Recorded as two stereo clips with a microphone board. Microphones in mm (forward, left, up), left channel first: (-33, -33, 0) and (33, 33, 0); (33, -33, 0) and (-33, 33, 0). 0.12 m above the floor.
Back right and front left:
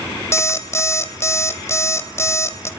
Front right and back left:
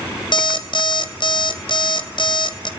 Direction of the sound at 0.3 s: 75° right.